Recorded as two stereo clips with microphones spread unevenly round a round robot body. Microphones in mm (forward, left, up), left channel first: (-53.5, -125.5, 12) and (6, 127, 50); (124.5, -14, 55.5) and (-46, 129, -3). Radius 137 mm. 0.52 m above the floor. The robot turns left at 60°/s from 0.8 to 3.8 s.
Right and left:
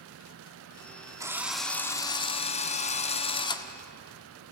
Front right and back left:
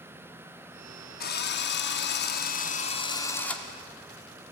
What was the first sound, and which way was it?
A drill, 5° right.